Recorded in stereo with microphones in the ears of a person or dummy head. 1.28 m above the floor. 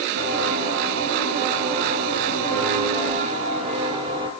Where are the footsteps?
55° right (ahead or behind), 4.5 m; by 4.3 s 15° right (ahead or behind), 1.8 m.